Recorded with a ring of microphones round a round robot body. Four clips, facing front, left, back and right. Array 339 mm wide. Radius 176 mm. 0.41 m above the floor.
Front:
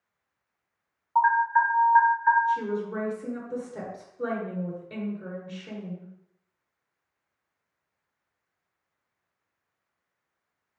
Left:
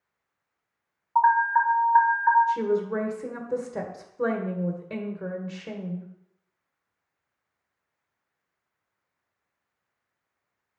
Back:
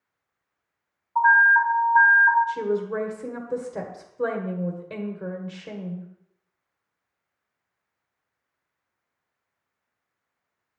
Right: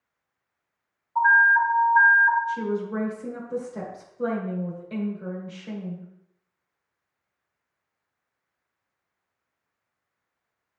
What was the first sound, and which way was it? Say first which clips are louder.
An alarm: right 1 dB, back 3 dB; 55° left.